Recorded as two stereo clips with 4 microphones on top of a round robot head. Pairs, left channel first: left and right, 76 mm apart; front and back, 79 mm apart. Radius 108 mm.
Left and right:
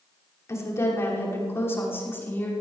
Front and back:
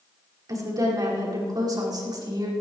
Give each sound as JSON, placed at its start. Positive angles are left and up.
{"t": 0.5, "sound": "a woman speaking", "azimuth_deg": 140, "distance_m": 5.5}